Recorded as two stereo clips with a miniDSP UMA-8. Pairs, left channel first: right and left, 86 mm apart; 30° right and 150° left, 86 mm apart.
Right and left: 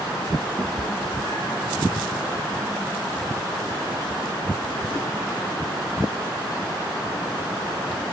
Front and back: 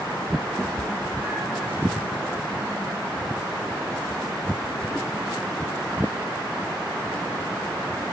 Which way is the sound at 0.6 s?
75° left.